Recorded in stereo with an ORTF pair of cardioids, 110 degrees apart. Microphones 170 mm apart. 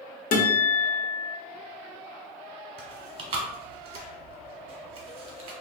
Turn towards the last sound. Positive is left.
turn(degrees=-35)